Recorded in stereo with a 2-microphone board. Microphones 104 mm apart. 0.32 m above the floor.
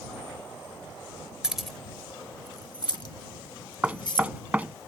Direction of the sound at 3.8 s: 15° right (ahead or behind).